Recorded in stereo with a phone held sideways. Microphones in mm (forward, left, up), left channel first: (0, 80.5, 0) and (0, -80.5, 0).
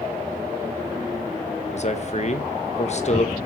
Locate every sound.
1.7 s a man speaking: 45° left (ahead or behind), 1.6 m